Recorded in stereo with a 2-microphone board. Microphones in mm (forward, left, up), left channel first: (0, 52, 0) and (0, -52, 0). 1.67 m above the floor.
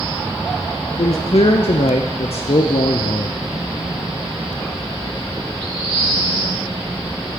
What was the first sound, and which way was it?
A man speaking, 80° left.